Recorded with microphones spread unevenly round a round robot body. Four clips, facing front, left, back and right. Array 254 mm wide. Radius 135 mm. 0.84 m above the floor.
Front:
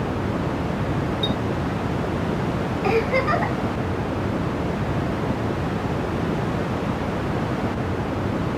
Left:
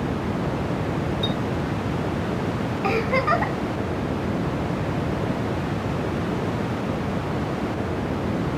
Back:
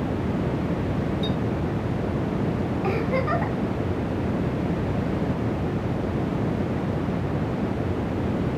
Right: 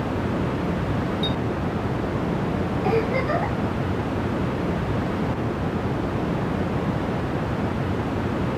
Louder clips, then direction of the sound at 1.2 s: Even, front 2 dB; 5° left.